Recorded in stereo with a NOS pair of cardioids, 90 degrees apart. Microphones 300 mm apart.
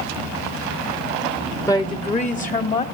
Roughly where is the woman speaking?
Ahead.